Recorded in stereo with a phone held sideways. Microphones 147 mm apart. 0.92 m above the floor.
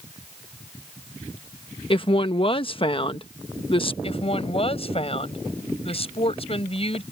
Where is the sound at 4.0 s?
40° left (ahead or behind).